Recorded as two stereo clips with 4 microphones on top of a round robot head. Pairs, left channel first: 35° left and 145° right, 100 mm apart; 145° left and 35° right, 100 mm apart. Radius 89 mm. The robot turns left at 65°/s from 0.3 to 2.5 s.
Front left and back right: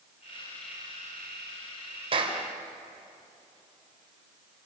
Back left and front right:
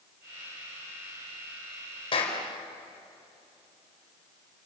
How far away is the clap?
About 3.5 m.